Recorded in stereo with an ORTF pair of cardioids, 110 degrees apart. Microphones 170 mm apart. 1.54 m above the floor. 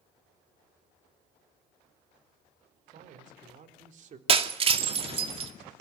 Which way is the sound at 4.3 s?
35° right.